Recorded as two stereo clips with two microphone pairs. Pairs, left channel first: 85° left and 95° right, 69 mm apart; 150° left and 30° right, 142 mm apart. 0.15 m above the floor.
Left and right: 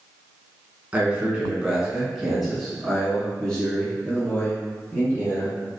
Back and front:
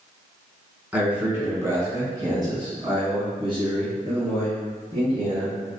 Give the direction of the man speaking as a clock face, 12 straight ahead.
3 o'clock.